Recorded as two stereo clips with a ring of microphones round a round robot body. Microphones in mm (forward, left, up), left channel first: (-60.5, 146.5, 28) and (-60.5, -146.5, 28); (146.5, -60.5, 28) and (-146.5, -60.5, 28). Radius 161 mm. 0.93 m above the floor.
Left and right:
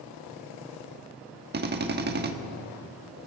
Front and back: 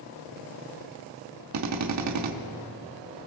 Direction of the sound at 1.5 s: 150° right.